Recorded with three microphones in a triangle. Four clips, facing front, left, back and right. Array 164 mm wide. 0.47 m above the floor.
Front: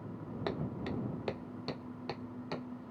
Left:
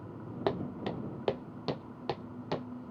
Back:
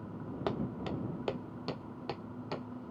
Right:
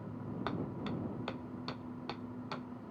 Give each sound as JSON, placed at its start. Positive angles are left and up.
{"t": 0.5, "sound": "footsteps", "azimuth_deg": 100}